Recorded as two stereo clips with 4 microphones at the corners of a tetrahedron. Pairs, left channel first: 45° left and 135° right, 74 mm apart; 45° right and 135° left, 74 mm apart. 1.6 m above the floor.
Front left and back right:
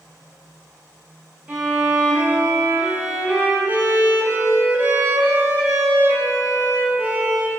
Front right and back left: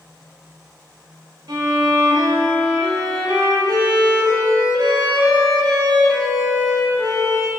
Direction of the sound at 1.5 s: 160° left.